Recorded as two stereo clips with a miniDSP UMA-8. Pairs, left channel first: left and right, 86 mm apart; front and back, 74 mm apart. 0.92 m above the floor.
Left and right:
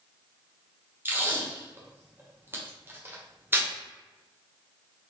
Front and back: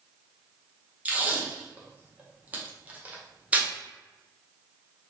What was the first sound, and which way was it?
Tape being pulled, 130° right.